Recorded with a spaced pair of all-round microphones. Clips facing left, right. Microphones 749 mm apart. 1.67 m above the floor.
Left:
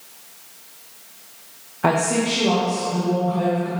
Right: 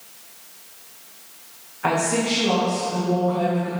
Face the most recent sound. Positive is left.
turn(degrees=55)  # may be behind; listen again after turning